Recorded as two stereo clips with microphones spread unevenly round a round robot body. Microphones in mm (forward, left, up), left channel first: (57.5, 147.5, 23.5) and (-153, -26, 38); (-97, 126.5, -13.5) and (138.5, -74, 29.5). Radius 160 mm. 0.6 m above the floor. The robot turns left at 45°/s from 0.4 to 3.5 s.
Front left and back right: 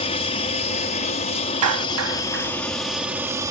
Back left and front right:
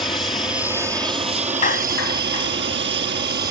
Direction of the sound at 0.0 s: 65° left.